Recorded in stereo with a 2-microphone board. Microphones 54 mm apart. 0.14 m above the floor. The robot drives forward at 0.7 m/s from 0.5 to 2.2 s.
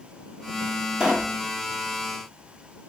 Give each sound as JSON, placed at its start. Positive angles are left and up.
{"t": 1.0, "sound": "a pop", "side_deg": -15, "distance_m": 1.5}